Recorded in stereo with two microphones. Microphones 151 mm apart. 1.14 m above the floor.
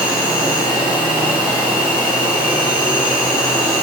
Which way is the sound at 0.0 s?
10° left (ahead or behind).